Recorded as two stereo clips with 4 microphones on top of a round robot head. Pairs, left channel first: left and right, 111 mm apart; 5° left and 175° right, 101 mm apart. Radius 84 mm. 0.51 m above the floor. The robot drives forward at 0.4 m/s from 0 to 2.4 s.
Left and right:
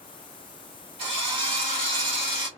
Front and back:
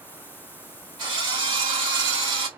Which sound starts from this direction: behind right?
A drill, at 1.0 s.